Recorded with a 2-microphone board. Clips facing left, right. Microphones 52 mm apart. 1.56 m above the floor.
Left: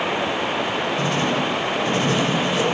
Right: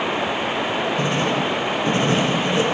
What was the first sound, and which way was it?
Writing, 30° right (ahead or behind).